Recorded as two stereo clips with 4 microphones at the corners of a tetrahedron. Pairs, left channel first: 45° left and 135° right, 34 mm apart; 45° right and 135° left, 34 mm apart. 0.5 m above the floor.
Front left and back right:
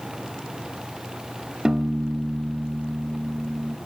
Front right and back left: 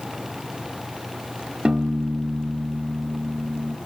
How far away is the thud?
I don't hear a thud.